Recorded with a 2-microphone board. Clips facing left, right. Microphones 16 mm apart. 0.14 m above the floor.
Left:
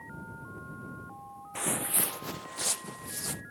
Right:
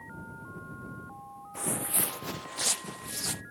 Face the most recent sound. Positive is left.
turn(degrees=-20)  # may be behind; listen again after turning